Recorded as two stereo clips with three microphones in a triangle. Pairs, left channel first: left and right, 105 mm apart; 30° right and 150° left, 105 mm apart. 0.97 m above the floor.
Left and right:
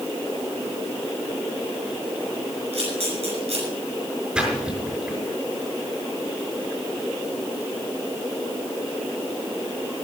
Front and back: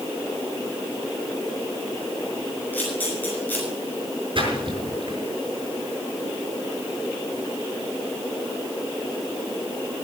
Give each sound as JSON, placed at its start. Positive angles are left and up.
{"t": 2.7, "sound": "a camera shutter", "azimuth_deg": -100, "distance_m": 6.0}
{"t": 4.3, "sound": "a splash", "azimuth_deg": -170, "distance_m": 5.5}